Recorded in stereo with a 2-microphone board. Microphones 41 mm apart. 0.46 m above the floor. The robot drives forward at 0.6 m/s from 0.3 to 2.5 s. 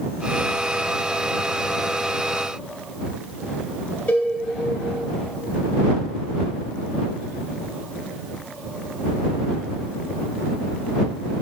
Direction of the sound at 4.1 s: 35° left (ahead or behind).